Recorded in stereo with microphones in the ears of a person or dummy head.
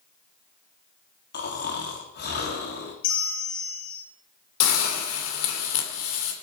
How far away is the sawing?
I don't hear sawing.